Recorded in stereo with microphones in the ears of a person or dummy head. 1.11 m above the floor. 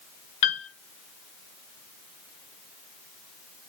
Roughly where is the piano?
Left.